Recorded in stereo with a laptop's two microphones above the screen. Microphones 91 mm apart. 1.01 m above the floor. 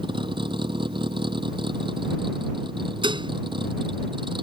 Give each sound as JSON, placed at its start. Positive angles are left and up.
{"t": 0.0, "sound": "a vehicle", "side_deg": -65}
{"t": 3.0, "sound": "dishes clattering", "side_deg": -65}